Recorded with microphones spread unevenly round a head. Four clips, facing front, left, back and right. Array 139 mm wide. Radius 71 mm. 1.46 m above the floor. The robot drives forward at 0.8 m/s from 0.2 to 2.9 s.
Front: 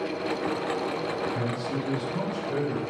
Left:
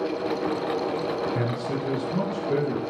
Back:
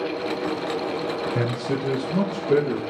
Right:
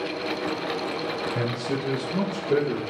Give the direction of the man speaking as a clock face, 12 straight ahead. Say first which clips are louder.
Even, back 4 dB; 6 o'clock.